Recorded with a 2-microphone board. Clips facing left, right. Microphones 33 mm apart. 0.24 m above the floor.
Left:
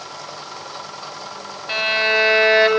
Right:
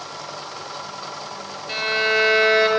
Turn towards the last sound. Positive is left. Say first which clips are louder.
# left 2 dB
turn(degrees=35)  # may be behind; listen again after turning